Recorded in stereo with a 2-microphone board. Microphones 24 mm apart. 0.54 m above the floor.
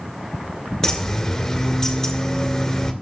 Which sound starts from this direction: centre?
A bird, at 0.8 s.